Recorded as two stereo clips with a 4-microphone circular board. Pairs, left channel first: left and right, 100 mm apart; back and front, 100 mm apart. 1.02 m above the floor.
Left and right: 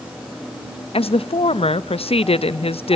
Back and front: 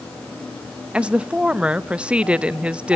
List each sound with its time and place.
0.9 s a woman speaking: 80° left, 0.6 m